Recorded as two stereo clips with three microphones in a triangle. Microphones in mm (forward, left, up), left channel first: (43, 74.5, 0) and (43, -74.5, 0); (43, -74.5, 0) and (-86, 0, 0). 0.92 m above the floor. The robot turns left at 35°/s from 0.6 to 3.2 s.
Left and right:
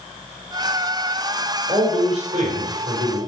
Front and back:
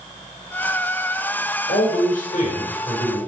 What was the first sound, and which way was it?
A man speaking, 35° right.